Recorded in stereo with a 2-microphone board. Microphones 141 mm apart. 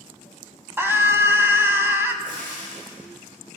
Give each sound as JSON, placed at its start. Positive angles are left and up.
{"t": 0.8, "sound": "a scream", "side_deg": -15, "distance_m": 1.2}
{"t": 2.2, "sound": "frying", "side_deg": -80, "distance_m": 5.5}